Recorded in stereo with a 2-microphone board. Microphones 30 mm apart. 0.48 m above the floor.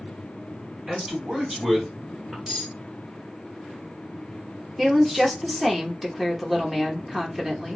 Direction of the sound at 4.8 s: 5° right (ahead or behind).